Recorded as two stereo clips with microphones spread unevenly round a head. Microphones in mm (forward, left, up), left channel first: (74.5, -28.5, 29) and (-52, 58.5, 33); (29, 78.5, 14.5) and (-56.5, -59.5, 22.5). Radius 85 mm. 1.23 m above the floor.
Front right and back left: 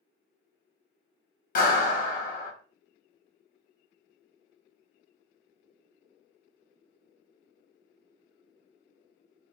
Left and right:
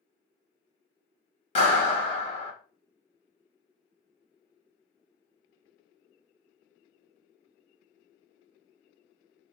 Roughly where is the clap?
Ahead.